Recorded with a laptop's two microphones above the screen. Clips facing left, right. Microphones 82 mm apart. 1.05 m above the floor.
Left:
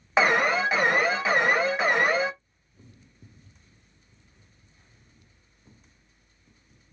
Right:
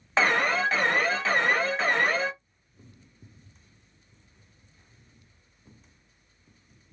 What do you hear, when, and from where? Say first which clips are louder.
0.2 s an alarm: left 2 dB; 10° left (ahead or behind), 0.5 m